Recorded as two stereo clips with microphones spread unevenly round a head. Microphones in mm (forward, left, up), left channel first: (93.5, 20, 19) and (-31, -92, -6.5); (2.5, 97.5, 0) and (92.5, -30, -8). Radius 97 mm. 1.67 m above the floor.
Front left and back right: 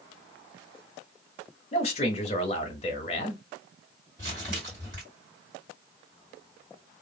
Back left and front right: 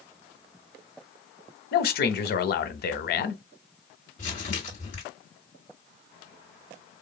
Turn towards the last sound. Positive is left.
turn(degrees=175)